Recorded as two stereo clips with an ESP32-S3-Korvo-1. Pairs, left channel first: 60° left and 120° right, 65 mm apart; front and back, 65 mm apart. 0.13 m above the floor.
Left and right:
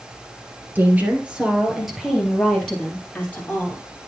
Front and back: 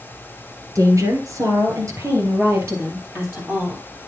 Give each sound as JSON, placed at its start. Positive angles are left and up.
{"t": 0.8, "sound": "a woman speaking", "azimuth_deg": -175, "distance_m": 1.8}